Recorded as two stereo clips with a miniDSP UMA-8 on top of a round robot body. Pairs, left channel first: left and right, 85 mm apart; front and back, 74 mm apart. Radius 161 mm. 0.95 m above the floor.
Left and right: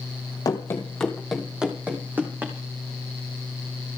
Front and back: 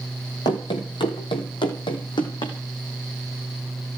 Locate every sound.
0.5 s running footsteps: 40° left, 1.3 m; by 2.5 s 20° right, 3 m